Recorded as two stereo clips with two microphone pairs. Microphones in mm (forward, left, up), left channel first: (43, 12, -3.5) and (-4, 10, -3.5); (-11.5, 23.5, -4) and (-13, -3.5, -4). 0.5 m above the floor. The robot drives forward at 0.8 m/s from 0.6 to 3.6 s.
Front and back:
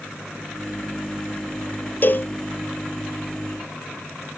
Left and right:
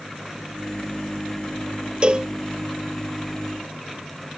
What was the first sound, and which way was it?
A cowbell, 45° right.